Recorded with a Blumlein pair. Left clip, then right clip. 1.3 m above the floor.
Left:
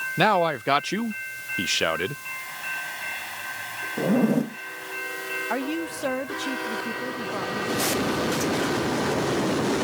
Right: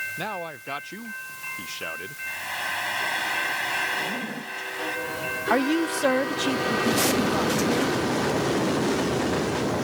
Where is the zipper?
35° left.